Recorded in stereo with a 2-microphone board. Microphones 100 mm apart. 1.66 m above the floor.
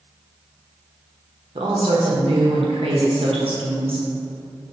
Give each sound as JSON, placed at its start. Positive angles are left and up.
{"t": 1.6, "sound": "a woman speaking", "side_deg": -70, "distance_m": 0.8}